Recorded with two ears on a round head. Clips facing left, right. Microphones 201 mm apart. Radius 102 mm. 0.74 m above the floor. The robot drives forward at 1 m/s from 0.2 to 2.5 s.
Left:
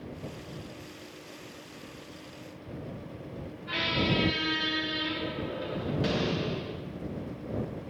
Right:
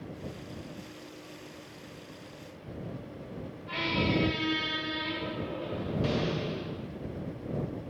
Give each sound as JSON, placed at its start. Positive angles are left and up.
{"t": 3.7, "sound": "a squeak", "side_deg": 20, "distance_m": 1.6}